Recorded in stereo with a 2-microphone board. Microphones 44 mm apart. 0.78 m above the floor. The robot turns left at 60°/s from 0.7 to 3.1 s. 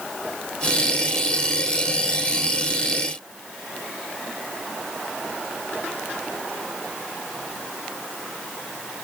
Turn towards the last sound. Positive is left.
No sound to turn to.